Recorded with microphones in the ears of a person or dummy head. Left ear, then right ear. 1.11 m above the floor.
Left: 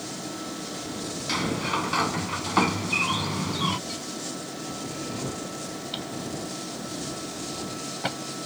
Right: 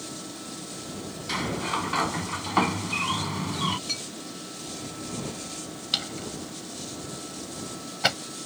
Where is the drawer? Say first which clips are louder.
Right 7 dB; 50° right (ahead or behind).